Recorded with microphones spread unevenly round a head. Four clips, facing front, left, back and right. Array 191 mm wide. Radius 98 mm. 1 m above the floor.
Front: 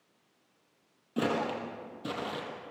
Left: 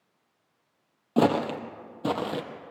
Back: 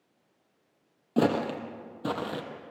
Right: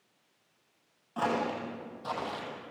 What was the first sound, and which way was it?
Footsteps, 130° left.